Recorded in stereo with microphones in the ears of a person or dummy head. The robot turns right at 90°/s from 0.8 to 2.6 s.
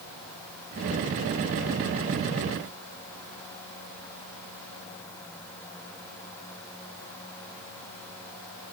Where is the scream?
No scream in this recording.